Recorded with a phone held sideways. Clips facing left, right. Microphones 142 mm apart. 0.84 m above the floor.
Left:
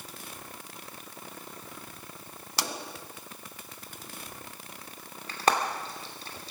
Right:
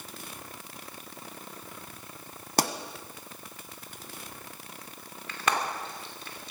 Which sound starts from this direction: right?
A pop, at 2.6 s.